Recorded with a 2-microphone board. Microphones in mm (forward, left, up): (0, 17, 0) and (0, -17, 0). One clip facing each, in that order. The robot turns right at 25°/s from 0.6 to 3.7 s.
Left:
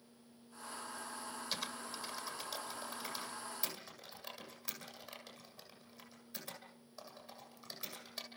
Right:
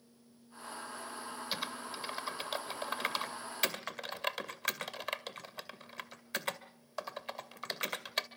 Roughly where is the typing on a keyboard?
Centre.